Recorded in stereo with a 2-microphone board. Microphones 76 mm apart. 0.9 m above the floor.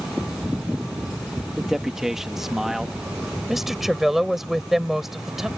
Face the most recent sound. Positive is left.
turn(degrees=-5)  # may be behind; listen again after turning